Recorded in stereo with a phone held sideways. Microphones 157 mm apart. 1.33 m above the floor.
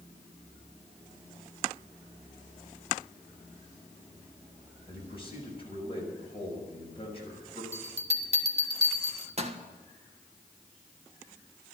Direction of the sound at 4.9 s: 35° left (ahead or behind).